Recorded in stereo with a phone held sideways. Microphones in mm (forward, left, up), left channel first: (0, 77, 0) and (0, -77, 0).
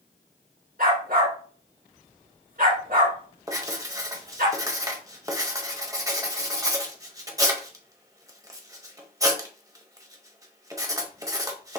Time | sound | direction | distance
0.8 | a dog barking | 70° right (ahead or behind) | 2.5 m
3.5 | writing | 20° right (ahead or behind) | 0.8 m